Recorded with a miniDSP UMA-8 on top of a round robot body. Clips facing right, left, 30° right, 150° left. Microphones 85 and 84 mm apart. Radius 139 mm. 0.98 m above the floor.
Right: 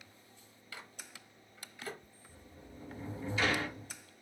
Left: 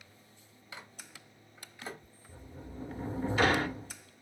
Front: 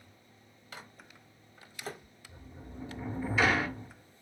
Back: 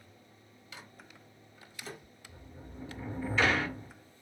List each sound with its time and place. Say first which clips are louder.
0.7 s a microwave: left 1 dB, front 2 dB; 20° left, 0.9 m
2.3 s a sliding door: left 7 dB, front 2 dB; 55° left, 0.8 m